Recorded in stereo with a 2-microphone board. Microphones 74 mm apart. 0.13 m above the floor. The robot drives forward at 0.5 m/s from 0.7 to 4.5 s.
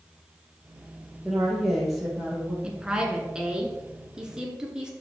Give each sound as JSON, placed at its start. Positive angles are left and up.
{"t": 1.2, "sound": "a woman speaking", "side_deg": 0, "distance_m": 3.0}
{"t": 2.6, "sound": "a woman speaking", "side_deg": -10, "distance_m": 1.7}